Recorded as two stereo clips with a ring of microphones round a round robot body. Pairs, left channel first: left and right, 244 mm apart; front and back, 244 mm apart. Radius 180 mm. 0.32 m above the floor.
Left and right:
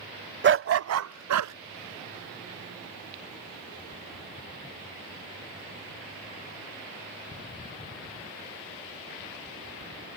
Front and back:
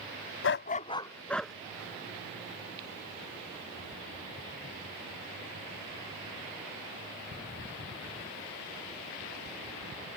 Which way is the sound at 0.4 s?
45° right.